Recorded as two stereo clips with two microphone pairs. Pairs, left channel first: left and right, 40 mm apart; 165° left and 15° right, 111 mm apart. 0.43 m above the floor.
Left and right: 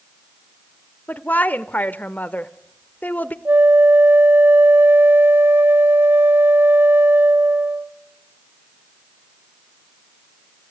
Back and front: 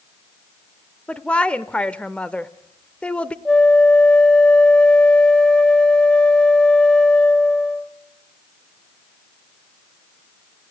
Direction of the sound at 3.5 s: 115° right.